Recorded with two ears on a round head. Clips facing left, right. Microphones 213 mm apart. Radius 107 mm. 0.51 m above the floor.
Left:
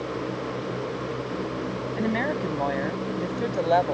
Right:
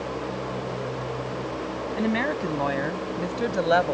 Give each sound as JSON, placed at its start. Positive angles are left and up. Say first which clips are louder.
{"t": 1.9, "sound": "a woman speaking", "louder": "right 1 dB", "side_deg": -5}